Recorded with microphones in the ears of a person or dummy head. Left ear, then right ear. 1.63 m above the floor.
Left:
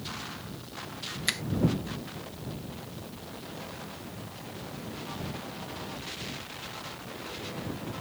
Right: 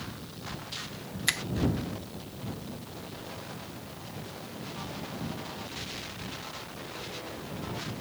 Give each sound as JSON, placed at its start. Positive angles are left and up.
{"t": 1.3, "sound": "a finger snap", "side_deg": -10}